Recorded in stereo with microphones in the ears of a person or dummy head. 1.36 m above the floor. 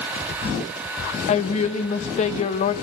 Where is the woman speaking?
40° left (ahead or behind), 0.9 m.